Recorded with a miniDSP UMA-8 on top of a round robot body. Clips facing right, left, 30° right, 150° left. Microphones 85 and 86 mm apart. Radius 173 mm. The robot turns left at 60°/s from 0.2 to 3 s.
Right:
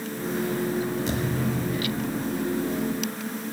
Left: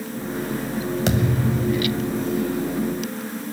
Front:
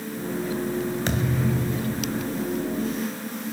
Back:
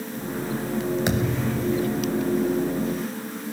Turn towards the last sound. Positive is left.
turn(degrees=-45)